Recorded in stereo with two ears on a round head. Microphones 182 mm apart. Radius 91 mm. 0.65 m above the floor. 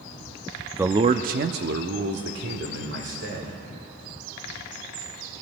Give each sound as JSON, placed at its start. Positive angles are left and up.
{"t": 0.7, "sound": "a man speaking", "side_deg": -5, "distance_m": 0.6}